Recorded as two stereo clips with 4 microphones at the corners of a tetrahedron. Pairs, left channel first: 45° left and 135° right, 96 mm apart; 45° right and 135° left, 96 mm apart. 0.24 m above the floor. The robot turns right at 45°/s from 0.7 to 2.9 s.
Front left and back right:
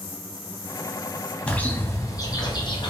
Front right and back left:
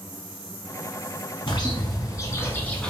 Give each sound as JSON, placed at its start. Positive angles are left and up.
{"t": 1.5, "sound": "a bird", "azimuth_deg": -30, "distance_m": 1.0}